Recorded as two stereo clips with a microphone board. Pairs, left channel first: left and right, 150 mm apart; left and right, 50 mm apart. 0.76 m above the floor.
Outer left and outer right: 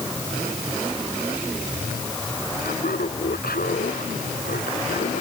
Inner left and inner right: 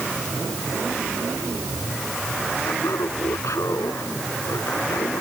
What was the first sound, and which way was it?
Laughter, 80° left.